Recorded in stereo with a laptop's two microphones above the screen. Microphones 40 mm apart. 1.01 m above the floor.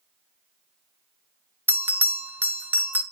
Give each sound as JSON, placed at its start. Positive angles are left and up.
{"t": 1.7, "sound": "a bell", "side_deg": -50, "distance_m": 0.9}